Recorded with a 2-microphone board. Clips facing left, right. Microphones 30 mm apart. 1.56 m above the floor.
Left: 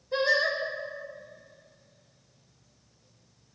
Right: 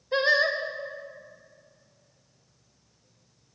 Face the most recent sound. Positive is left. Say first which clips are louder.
# right 2 dB
turn(degrees=-35)  # may be behind; listen again after turning